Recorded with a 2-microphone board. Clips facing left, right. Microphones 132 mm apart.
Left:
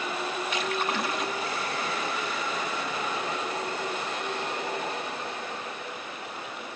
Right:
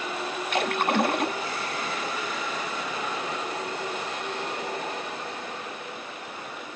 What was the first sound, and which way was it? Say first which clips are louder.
A splash: right 7 dB; 55° right (ahead or behind).